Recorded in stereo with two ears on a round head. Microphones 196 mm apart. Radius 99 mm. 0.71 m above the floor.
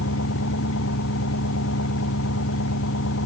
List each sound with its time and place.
0.0 s an engine running: 65° left (ahead or behind)